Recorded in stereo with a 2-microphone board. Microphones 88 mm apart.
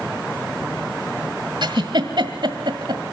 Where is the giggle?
60° right (ahead or behind), 1.5 m.